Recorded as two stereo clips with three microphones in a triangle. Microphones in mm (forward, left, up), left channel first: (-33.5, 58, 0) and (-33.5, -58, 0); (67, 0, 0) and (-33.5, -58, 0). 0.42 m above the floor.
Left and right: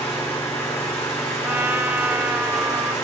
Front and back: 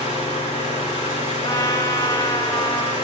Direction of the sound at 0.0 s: 20° left.